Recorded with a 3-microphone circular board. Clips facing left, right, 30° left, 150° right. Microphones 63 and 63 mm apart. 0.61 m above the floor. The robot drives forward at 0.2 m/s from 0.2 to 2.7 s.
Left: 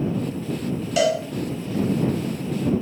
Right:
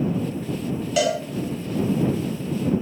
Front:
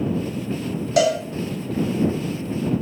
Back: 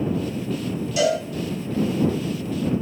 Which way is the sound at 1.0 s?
5° left.